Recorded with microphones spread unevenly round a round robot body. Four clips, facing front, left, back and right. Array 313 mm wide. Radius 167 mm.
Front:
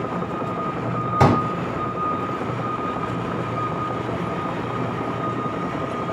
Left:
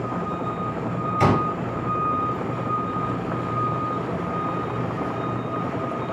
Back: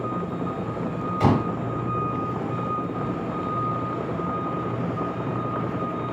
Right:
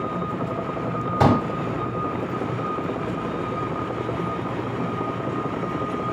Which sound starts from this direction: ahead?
A pop, at 1.2 s.